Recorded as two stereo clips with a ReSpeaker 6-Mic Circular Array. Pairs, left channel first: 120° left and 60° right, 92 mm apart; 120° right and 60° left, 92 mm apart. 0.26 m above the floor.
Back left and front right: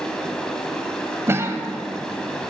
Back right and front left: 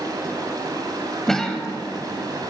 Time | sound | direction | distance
0.0 | running water | 40° left | 1.4 m
1.3 | a cough | 40° right | 1.1 m